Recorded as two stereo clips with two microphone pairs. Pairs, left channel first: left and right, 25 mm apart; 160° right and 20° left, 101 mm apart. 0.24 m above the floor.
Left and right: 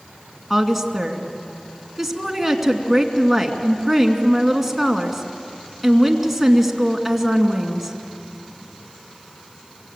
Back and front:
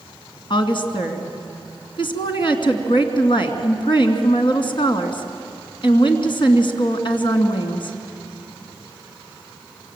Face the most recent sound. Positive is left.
turn(degrees=180)